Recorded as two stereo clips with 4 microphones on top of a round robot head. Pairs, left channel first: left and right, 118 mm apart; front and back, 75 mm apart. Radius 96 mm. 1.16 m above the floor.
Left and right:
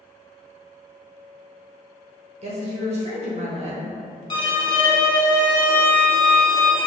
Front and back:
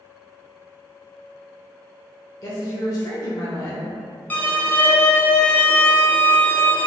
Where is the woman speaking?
50° right, 0.6 m.